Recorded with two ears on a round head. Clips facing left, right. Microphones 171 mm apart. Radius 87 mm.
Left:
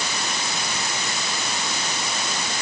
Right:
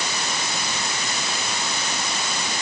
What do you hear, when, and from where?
Only background noise.